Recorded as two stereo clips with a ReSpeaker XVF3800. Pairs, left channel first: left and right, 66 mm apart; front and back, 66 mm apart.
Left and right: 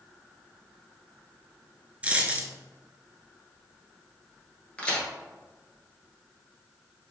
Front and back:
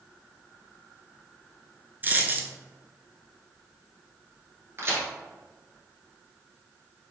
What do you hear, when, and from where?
2.0 s a dropped coin: 145° right, 0.6 m
4.8 s a crack: 155° left, 1.5 m